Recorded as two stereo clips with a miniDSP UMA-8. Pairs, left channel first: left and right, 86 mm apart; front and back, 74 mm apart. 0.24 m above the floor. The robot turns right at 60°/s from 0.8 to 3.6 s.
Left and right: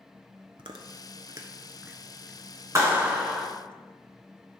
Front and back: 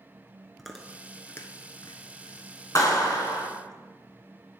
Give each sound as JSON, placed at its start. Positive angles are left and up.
{"t": 0.6, "sound": "chewing", "azimuth_deg": -85, "distance_m": 1.0}
{"t": 2.8, "sound": "a clap", "azimuth_deg": -40, "distance_m": 1.9}